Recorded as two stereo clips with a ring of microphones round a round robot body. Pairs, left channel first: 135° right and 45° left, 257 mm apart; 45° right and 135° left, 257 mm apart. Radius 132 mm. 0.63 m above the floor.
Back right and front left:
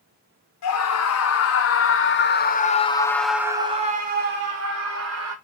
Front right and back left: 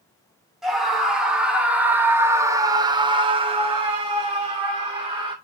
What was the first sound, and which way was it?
A scream, 135° right.